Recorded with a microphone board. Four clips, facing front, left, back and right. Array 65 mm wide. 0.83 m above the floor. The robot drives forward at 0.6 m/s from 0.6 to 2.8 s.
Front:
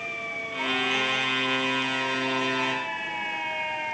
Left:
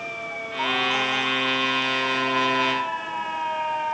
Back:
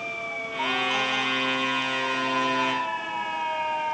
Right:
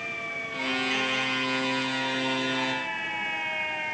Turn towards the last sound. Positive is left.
No sound to turn to.